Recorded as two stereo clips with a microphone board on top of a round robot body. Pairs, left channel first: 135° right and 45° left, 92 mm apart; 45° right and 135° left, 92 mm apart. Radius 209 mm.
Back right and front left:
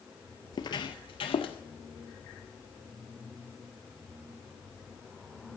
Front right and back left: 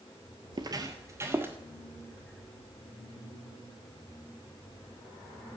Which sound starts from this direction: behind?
Footsteps, at 0.5 s.